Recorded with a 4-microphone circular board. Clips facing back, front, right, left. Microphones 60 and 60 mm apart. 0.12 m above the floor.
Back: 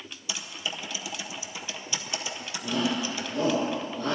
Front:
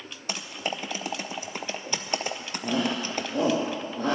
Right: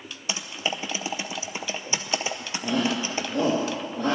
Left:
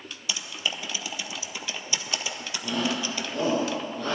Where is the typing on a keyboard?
35° right, 0.7 m.